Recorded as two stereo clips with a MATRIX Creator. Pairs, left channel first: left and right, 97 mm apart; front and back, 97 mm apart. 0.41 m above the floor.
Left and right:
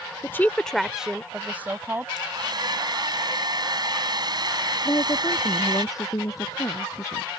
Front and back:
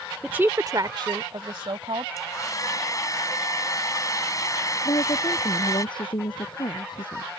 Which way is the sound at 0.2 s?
110° left.